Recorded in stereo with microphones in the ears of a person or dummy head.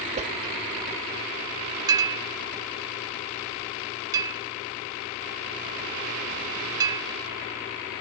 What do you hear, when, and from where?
0.2 s a whoosh: 40° right (ahead or behind)
1.9 s a clink: 25° right (ahead or behind)